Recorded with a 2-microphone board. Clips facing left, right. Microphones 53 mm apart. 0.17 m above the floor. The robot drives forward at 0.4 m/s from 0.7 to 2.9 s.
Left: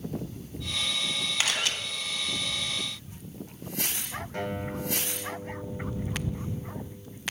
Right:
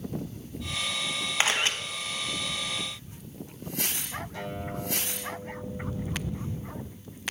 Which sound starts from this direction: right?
A camera shutter, at 1.4 s.